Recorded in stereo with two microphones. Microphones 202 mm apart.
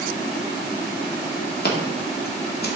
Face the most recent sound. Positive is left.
turn(degrees=55)  # may be behind; listen again after turning